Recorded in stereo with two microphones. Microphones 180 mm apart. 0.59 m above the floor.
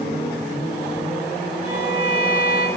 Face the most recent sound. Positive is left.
turn(degrees=35)  # may be behind; listen again after turning